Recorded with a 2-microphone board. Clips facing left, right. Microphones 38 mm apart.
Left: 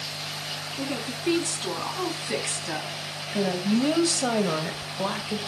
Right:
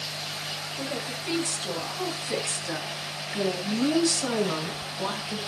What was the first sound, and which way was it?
A woman speaking, 55° left (ahead or behind).